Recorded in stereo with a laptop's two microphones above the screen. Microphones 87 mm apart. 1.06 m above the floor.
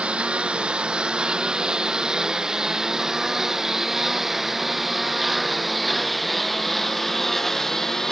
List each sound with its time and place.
0.0 s a lawn mower: 15° right (ahead or behind); by 8.1 s 5° left (ahead or behind)